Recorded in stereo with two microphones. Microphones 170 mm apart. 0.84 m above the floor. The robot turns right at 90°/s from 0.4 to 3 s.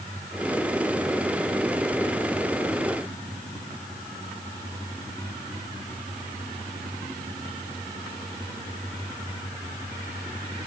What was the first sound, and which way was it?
Only background noise.